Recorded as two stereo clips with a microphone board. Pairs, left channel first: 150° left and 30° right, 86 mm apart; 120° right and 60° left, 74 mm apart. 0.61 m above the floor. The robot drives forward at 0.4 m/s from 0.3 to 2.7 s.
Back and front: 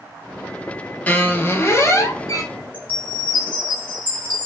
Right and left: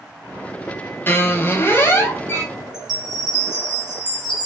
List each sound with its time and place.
1.1 s a squeak: 155° right, 0.6 m; by 2.4 s 170° right, 1.0 m
2.7 s a chime: 75° left, 1.9 m